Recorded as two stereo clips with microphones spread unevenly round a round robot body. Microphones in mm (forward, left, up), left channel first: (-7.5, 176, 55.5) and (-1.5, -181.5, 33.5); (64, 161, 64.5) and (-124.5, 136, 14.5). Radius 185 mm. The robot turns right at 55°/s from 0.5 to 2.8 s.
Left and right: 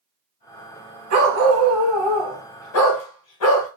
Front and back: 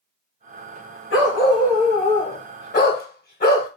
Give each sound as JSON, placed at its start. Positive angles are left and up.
{"t": 1.1, "sound": "a dog barking", "azimuth_deg": -40, "distance_m": 0.9}